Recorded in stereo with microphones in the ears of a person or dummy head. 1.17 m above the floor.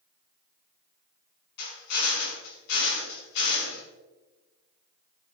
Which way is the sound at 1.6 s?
60° left (ahead or behind).